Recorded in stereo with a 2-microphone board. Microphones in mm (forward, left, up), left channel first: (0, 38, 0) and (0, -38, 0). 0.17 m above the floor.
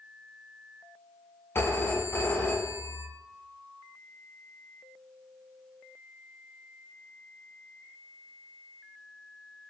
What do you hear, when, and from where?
1.6 s a phone ringing: 35° left (ahead or behind), 0.7 m